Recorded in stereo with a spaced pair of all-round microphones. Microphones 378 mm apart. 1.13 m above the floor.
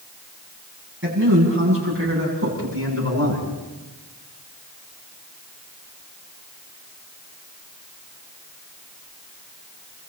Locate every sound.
1.0 s a man speaking: 30° right (ahead or behind), 9.5 m; by 3.5 s 40° right (ahead or behind), 11 m